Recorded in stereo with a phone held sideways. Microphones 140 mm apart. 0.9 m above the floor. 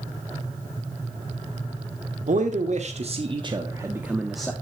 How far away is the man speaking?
About 1.9 m.